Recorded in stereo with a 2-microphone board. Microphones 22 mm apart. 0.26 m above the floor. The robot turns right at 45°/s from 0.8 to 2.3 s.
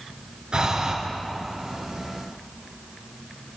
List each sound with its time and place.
0.5 s breathing: 45° right (ahead or behind), 2.5 m; by 0.9 s 40° right (ahead or behind), 2.5 m